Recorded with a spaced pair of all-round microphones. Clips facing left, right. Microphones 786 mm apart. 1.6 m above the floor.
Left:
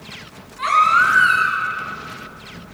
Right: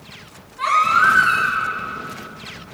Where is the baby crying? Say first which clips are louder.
Even; 10° right (ahead or behind), 6.5 m.